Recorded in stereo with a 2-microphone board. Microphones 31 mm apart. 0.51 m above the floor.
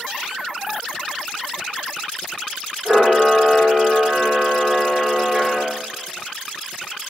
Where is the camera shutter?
25° right (ahead or behind), 1.4 m.